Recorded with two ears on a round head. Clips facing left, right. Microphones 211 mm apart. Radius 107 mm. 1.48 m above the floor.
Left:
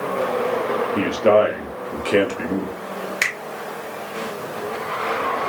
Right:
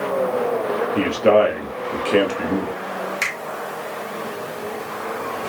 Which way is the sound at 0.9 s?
Centre (ahead or behind).